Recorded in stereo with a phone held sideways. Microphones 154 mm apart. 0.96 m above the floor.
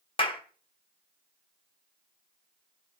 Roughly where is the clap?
Left.